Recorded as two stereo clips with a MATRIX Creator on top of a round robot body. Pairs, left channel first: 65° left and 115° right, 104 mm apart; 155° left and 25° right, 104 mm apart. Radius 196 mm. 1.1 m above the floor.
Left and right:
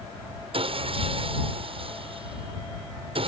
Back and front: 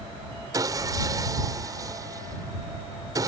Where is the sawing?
80° right.